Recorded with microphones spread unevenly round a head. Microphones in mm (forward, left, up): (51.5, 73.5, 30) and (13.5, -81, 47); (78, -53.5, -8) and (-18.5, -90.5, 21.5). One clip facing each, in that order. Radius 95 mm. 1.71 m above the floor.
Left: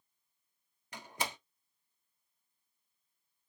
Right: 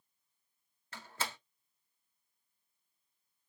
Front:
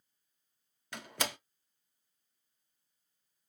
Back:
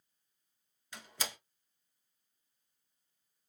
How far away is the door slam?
About 0.6 m.